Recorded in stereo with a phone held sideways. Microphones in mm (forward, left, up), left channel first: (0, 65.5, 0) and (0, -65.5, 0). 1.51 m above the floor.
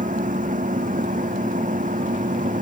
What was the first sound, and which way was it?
A machine running, 85° right.